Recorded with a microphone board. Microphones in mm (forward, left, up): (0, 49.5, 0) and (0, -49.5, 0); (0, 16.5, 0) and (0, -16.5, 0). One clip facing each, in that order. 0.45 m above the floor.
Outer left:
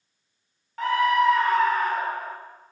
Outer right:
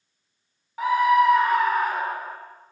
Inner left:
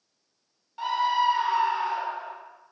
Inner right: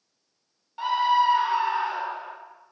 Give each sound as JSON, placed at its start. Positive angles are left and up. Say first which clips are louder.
{"t": 0.8, "sound": "a scream", "louder": "outer right 3 dB, inner right 3 dB", "side_deg": -10, "distance_m": 0.9}